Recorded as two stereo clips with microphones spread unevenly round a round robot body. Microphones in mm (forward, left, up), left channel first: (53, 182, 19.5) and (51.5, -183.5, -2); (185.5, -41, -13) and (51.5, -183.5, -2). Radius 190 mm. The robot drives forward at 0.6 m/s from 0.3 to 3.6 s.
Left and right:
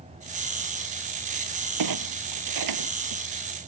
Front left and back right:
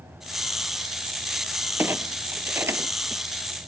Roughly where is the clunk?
Ahead right.